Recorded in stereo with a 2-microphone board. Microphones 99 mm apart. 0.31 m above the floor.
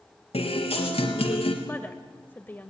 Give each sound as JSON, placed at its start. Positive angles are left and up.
{"t": 0.3, "sound": "a guitar", "side_deg": 85, "distance_m": 3.0}
{"t": 1.6, "sound": "a woman speaking", "side_deg": 20, "distance_m": 1.1}